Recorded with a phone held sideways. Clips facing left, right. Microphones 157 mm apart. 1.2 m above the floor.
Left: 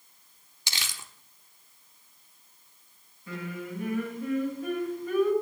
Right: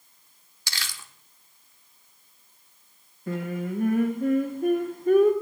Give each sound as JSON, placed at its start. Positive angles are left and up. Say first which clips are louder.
{"t": 0.7, "sound": "crumpling", "louder": "right 1 dB", "side_deg": 20, "distance_m": 0.8}
{"t": 3.3, "sound": "singing", "louder": "right 7 dB", "side_deg": -50, "distance_m": 1.6}